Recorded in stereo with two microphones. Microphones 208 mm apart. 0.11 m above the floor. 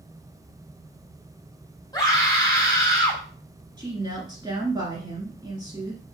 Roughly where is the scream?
Centre.